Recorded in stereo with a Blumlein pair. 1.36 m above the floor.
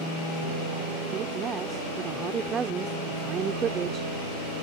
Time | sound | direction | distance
1.1 | a woman speaking | 25° right | ?